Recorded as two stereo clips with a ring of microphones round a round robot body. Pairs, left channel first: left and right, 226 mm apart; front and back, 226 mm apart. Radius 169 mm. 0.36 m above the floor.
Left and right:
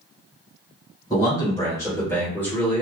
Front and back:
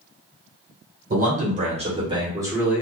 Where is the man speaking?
155° left, 1.5 m; by 2.8 s 115° left, 1.2 m.